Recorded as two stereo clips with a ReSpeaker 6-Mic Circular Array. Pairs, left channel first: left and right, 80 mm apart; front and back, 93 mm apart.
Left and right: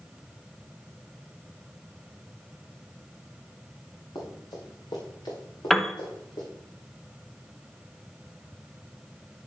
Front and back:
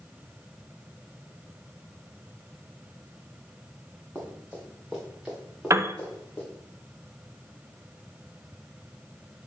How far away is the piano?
About 0.5 m.